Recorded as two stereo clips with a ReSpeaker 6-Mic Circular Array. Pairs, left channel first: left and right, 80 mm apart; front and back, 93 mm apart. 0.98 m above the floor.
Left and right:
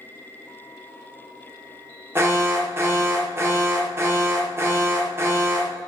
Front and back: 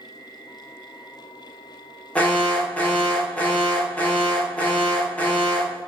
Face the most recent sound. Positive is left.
turn(degrees=-65)